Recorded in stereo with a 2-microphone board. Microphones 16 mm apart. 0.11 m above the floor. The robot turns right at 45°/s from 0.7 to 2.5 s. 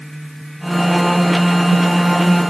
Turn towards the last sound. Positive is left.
No sound to turn to.